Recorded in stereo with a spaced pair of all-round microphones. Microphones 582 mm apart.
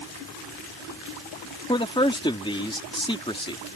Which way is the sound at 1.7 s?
10° left (ahead or behind).